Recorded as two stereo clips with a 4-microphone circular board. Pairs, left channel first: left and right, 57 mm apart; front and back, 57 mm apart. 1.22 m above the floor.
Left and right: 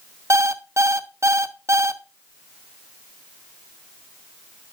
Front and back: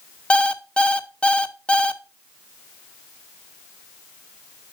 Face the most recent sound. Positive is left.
turn(degrees=-70)